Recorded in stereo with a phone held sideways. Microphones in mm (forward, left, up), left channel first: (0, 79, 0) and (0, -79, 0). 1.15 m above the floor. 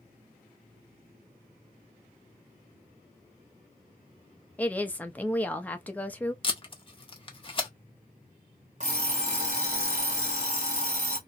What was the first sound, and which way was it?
A woman speaking, 10° left (ahead or behind).